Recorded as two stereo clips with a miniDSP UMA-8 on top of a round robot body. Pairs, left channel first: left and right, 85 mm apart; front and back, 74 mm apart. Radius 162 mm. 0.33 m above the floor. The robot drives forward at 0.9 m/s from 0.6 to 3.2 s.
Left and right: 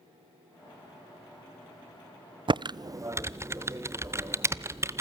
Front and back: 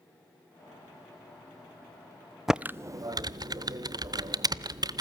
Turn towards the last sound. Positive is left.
turn(degrees=-150)